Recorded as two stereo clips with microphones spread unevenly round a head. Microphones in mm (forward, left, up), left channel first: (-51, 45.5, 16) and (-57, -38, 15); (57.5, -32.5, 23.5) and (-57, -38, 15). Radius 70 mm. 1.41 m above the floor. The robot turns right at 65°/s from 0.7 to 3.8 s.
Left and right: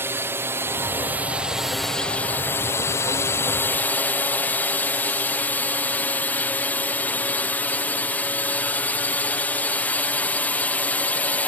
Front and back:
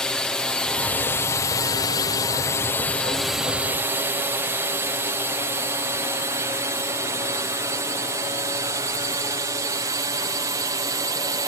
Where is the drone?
80° right; by 11.5 s 145° left.